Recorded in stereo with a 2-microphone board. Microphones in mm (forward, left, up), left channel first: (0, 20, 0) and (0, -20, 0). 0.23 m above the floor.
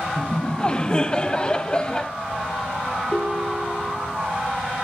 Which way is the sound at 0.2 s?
25° left (ahead or behind).